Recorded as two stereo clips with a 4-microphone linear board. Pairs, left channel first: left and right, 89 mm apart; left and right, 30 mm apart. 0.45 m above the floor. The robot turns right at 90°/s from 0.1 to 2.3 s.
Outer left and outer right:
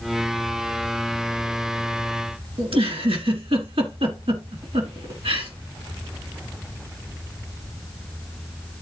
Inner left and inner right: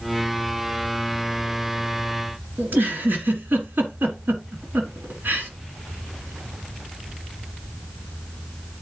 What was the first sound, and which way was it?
A giggle, 75° right (ahead or behind).